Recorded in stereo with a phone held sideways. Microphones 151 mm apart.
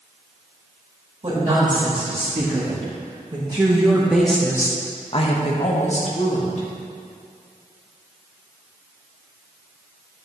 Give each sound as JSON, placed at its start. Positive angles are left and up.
{"t": 1.2, "sound": "a woman speaking", "side_deg": -40, "distance_m": 3.0}